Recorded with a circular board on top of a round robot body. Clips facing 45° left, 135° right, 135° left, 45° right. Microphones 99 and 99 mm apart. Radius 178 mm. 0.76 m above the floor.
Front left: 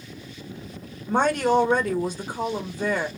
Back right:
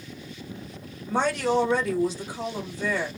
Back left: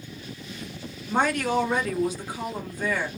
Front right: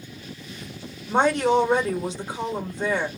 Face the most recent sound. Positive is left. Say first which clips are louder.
# front left 3 dB, front right 4 dB
turn(degrees=15)